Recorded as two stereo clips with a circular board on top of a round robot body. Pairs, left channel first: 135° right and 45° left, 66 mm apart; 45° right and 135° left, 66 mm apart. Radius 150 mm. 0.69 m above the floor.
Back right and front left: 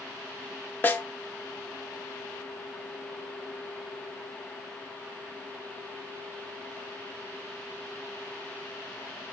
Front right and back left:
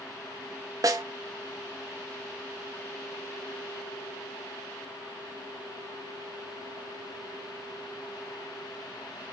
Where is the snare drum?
165° left, 0.5 m.